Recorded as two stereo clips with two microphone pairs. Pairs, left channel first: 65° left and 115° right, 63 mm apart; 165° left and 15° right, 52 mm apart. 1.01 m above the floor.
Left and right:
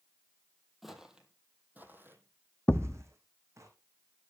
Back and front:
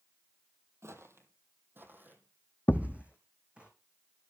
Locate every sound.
0.8 s footsteps: 30° right, 2 m; by 3.7 s 80° right, 4 m
2.7 s a thud: 125° left, 0.6 m